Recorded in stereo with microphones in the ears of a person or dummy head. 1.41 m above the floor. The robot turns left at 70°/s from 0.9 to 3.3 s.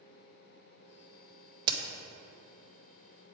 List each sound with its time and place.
1.7 s a crack: 30° right (ahead or behind), 0.6 m; by 1.8 s 35° right (ahead or behind), 0.6 m